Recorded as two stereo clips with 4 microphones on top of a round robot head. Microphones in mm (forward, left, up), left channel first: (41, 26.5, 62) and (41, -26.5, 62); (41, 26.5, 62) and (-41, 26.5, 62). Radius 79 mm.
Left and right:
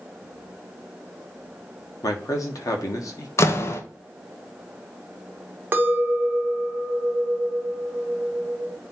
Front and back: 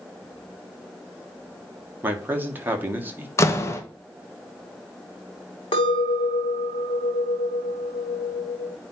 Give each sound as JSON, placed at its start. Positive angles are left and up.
{"t": 2.0, "sound": "a man speaking", "azimuth_deg": 110, "distance_m": 1.6}
{"t": 3.4, "sound": "a door slam", "azimuth_deg": 55, "distance_m": 0.9}
{"t": 5.7, "sound": "a clink", "azimuth_deg": -35, "distance_m": 1.1}